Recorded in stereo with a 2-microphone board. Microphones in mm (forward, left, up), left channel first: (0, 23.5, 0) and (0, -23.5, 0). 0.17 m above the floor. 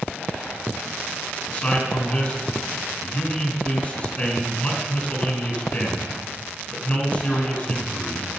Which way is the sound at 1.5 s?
30° left (ahead or behind).